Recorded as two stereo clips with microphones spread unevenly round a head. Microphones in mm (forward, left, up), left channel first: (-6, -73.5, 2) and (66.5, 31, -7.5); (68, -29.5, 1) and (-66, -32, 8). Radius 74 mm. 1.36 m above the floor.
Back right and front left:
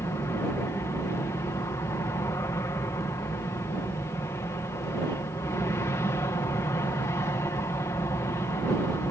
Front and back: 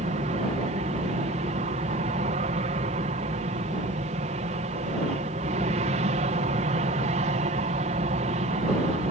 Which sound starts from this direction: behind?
An aircraft, at 0.0 s.